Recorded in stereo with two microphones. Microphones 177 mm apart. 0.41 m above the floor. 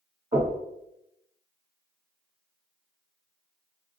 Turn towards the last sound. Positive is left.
turn(degrees=-40)  # may be behind; listen again after turning